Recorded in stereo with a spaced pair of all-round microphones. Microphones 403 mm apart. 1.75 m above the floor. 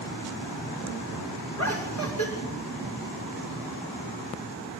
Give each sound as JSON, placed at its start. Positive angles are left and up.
{"t": 1.6, "sound": "laughter", "side_deg": 40, "distance_m": 7.0}